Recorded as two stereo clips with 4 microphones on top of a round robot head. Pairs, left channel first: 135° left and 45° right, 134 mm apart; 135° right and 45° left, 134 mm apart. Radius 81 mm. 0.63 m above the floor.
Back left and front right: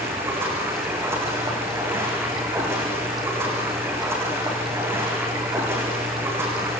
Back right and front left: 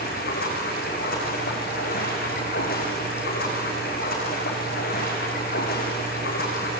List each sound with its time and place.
0.0 s running water: 120° right, 6.5 m